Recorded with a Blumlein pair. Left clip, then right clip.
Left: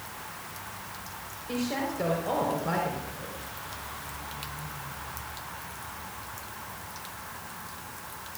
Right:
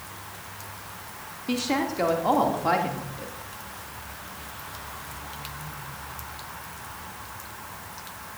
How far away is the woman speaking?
About 3 m.